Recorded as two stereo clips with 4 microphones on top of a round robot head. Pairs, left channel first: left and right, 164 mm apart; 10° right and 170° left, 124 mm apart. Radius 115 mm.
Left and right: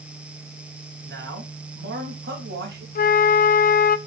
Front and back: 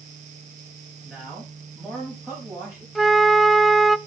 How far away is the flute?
About 0.6 m.